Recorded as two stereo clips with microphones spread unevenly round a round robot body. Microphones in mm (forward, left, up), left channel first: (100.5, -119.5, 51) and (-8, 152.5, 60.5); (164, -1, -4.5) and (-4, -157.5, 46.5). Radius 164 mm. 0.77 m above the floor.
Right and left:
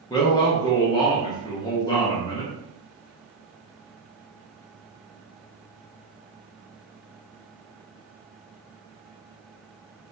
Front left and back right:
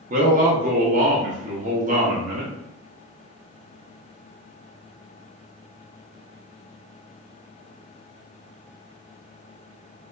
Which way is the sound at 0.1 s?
115° right.